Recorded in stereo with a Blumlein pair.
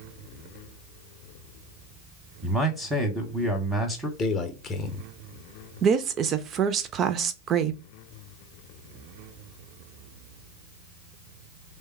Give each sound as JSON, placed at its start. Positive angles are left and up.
{"t": 2.4, "sound": "a man speaking", "azimuth_deg": -5, "distance_m": 0.8}
{"t": 4.2, "sound": "a man speaking", "azimuth_deg": 25, "distance_m": 0.8}
{"t": 5.8, "sound": "a woman speaking", "azimuth_deg": -30, "distance_m": 0.5}